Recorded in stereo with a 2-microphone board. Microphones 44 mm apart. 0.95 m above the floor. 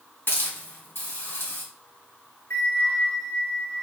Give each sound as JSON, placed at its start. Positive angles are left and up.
{"t": 0.3, "sound": "a hiss", "side_deg": 65, "distance_m": 1.7}
{"t": 2.5, "sound": "a bell", "side_deg": 75, "distance_m": 1.2}